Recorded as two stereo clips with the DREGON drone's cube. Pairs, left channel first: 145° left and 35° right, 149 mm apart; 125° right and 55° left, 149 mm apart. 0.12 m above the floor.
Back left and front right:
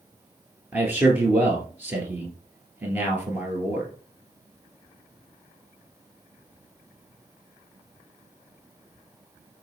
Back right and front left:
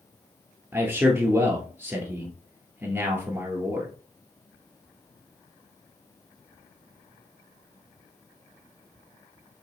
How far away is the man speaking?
About 1.3 m.